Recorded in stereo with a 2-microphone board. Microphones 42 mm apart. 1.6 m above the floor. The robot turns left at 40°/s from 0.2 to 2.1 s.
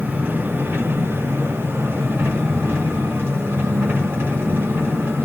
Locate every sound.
0.0 s an engine running: 40° right, 4 m; by 5.3 s 120° right, 4 m